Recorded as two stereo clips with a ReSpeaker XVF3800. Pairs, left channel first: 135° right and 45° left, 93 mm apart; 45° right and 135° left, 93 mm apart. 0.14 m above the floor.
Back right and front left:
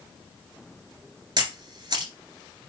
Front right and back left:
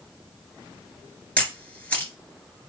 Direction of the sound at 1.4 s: 25° left.